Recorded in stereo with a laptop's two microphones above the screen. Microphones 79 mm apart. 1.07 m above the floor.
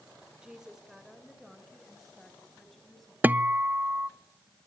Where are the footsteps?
No footsteps in this recording.